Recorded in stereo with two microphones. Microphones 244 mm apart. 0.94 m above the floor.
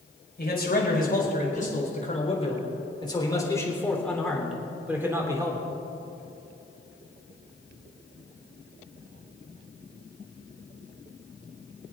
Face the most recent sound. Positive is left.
turn(degrees=-15)  # may be behind; listen again after turning